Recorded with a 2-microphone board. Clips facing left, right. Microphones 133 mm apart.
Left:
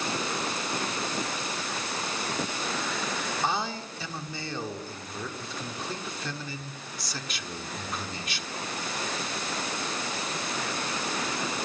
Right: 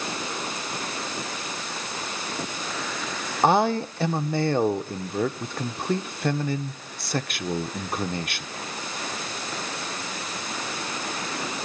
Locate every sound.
3.4 s a man speaking: 60° right (ahead or behind), 1.4 m